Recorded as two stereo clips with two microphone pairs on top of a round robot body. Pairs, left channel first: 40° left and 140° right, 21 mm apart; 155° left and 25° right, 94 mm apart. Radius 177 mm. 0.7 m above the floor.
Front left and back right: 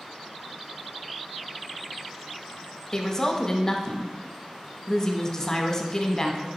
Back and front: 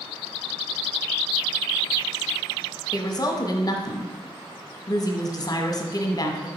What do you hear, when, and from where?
2.9 s a woman speaking: 110° left, 1.0 m